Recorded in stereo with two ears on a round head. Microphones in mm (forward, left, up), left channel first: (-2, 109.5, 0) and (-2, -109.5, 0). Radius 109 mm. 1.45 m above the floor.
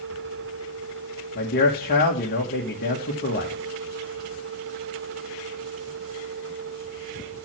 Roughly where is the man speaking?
Left.